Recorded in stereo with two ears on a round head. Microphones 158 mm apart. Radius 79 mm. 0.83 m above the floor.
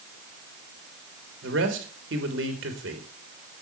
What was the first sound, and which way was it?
A man speaking, 80° right.